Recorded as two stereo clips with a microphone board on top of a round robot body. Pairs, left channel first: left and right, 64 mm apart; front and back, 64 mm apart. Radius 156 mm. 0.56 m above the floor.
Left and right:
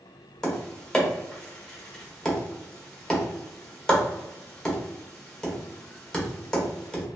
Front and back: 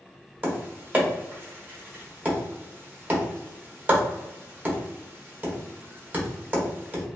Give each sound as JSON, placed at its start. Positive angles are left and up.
{"t": 0.4, "sound": "tapping", "azimuth_deg": 160, "distance_m": 1.3}